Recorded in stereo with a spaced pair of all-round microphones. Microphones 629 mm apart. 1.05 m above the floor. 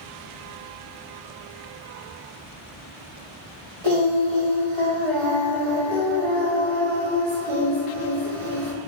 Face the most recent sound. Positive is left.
turn(degrees=-50)  # may be behind; listen again after turning